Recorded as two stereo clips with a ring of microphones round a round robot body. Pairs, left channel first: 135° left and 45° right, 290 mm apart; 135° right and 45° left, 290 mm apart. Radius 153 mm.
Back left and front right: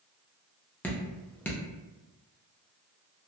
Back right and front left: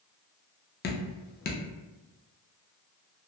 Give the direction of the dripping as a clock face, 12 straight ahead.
5 o'clock.